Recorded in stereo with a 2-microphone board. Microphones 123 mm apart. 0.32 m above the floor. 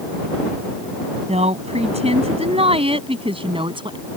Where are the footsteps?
I don't hear footsteps.